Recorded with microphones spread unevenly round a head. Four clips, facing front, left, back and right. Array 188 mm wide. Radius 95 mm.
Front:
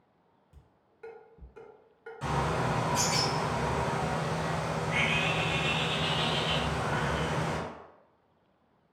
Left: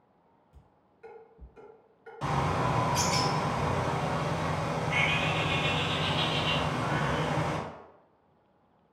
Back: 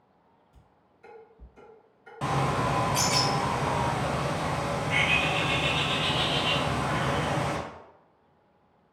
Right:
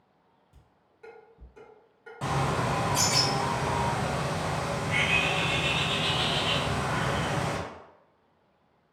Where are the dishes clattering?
20° right, 1.9 m.